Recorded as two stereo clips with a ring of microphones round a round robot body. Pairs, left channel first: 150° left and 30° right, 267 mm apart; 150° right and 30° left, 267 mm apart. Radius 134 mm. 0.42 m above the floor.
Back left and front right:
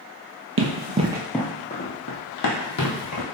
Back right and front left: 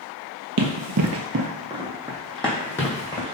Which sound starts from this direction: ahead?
Running footsteps, at 0.6 s.